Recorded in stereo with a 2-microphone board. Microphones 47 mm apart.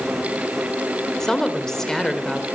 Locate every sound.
1.2 s a woman speaking: 10° left (ahead or behind), 2 m